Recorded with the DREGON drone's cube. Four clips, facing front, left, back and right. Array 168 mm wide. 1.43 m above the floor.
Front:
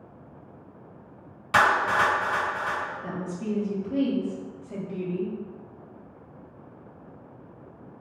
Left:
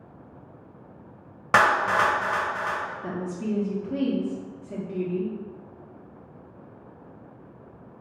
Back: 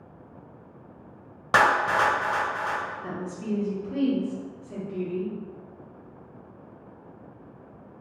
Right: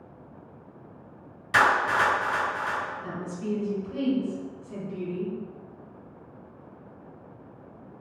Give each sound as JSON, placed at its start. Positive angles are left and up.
{"t": 1.5, "sound": "a clap", "azimuth_deg": 125, "distance_m": 1.0}
{"t": 3.0, "sound": "a woman speaking", "azimuth_deg": 85, "distance_m": 1.1}